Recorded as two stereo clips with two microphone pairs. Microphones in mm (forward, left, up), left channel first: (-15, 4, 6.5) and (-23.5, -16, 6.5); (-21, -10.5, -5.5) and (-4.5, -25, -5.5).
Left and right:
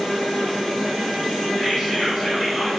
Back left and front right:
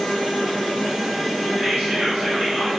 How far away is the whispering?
About 1.9 m.